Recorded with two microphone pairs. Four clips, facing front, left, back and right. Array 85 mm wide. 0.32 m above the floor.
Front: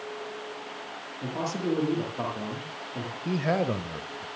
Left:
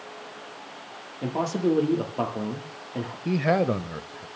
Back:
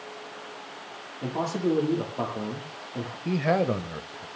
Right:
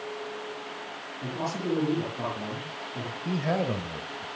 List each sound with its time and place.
1.2 s a man speaking: 90° left, 8 m
3.2 s a man speaking: 115° left, 1.0 m